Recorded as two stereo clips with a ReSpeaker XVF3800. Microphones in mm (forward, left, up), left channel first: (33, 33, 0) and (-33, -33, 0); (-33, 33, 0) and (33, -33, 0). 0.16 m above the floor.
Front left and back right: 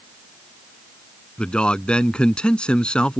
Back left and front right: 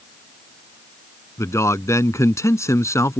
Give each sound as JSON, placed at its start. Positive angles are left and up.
{"t": 1.4, "sound": "a man speaking", "azimuth_deg": 115}